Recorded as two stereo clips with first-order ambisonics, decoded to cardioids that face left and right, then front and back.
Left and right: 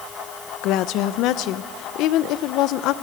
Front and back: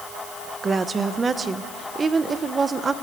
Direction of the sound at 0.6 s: 110° left.